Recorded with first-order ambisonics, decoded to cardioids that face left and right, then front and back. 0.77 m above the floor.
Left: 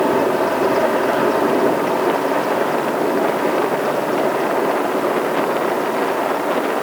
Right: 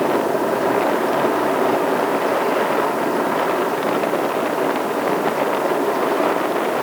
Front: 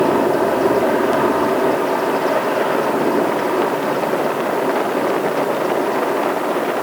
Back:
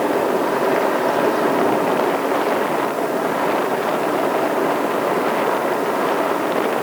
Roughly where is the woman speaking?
I don't hear a woman speaking.